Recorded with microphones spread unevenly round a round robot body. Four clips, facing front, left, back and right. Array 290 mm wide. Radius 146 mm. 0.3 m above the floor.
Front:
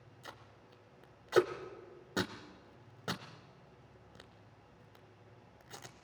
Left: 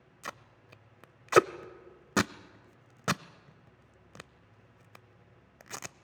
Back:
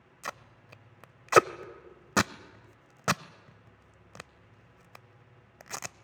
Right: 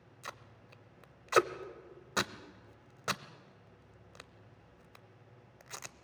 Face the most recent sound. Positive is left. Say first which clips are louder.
# left 4 dB, back 12 dB
turn(degrees=145)